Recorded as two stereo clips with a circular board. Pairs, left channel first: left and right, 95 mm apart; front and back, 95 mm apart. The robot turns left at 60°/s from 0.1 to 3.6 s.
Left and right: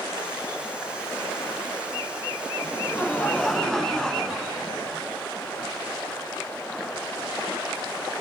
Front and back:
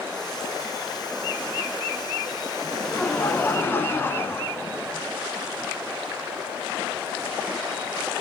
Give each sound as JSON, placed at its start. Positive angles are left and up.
{"t": 2.6, "sound": "laughter", "azimuth_deg": 70, "distance_m": 1.3}